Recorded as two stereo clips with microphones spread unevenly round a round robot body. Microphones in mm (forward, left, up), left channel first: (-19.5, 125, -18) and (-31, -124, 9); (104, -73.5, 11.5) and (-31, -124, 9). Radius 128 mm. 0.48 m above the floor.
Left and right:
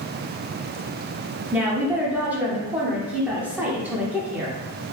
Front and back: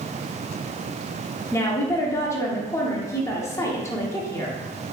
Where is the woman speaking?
5° right, 0.7 m.